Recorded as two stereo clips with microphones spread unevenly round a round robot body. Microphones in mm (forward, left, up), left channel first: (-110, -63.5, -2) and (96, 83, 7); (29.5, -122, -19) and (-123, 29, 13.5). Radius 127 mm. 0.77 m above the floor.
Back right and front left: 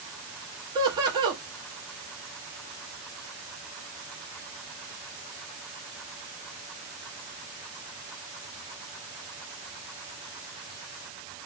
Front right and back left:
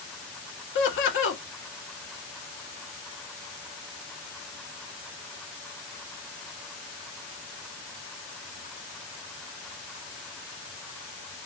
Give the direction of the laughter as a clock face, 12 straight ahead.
1 o'clock.